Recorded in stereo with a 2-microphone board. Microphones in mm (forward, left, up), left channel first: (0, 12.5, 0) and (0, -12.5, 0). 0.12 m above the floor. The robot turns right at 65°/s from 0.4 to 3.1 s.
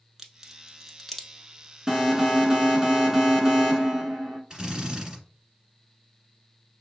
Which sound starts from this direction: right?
A drill, at 4.5 s.